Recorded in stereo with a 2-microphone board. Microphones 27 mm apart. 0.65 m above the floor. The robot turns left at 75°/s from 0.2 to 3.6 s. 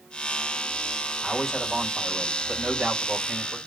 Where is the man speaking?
35° left, 2.5 m; by 3.6 s 140° right, 2.5 m.